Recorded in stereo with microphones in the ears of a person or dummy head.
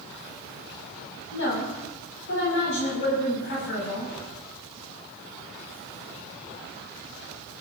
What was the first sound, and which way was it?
A woman speaking, 70° left (ahead or behind).